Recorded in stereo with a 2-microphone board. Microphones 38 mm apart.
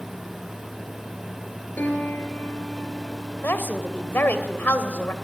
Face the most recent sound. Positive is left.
turn(degrees=75)  # may be behind; listen again after turning